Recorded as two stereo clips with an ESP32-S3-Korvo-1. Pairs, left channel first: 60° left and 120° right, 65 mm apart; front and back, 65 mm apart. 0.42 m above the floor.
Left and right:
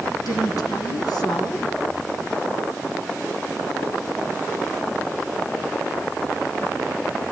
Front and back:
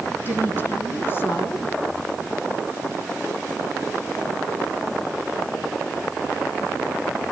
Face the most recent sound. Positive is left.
turn(degrees=55)